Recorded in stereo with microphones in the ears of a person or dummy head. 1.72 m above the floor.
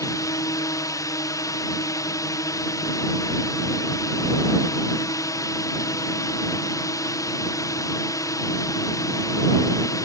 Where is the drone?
15° left (ahead or behind).